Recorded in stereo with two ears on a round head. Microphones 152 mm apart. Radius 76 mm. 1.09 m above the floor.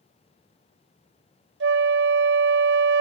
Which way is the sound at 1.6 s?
75° right (ahead or behind).